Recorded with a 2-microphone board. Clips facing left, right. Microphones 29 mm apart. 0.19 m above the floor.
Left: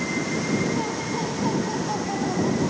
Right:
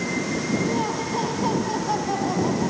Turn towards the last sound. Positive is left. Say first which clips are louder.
# right 2 dB
turn(degrees=-25)  # may be behind; listen again after turning